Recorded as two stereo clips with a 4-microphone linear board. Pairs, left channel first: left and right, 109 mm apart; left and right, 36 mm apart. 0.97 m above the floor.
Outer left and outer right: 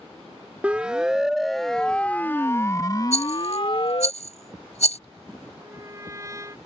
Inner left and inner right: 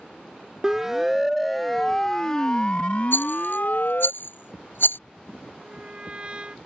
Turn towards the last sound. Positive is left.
turn(degrees=-30)  # may be behind; listen again after turning